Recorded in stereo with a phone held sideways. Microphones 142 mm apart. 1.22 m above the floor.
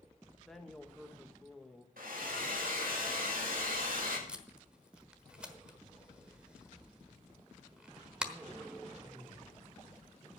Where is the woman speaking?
Centre (ahead or behind), 1.6 m.